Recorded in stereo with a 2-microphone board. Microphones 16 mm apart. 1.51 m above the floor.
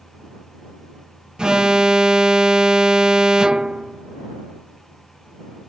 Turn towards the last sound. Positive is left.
turn(degrees=-60)  # may be behind; listen again after turning